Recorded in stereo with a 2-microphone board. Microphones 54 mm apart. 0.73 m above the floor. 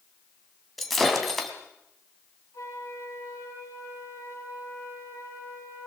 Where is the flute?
65° left (ahead or behind), 7.5 m.